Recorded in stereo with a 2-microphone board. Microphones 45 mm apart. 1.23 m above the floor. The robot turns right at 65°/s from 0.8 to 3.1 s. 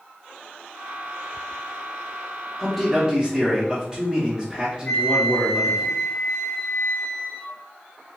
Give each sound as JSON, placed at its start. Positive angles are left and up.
{"t": 2.6, "sound": "a man speaking", "azimuth_deg": 165, "distance_m": 1.0}
{"t": 4.8, "sound": "a flute", "side_deg": 30, "distance_m": 1.6}